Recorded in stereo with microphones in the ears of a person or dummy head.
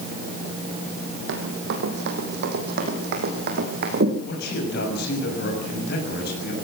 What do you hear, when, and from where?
1.3 s running footsteps: 65° right (ahead or behind), 3.5 m; by 4.2 s 55° right (ahead or behind), 4 m
4.2 s a man speaking: 65° left (ahead or behind), 6.5 m